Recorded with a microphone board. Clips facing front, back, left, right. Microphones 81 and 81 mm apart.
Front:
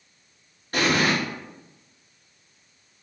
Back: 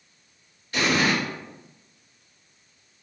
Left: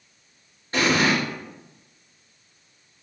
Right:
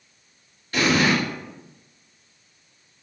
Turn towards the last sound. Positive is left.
turn(degrees=35)